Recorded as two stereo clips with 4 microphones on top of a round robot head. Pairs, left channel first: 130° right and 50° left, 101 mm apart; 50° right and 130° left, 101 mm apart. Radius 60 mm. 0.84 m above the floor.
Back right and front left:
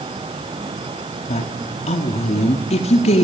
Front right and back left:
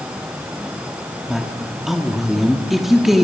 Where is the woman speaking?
145° right, 1.5 m.